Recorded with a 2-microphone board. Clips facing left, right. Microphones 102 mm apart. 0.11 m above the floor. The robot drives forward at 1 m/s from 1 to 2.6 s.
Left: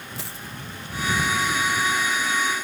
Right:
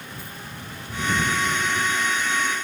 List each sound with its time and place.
0.2 s a dropped coin: 75° left (ahead or behind)